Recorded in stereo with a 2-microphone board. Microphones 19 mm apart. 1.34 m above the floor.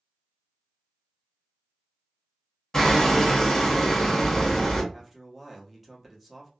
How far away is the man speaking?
About 1.0 m.